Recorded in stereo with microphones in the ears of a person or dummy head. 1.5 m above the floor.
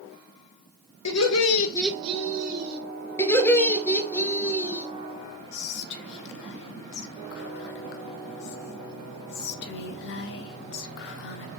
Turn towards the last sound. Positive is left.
turn(degrees=60)  # may be behind; listen again after turning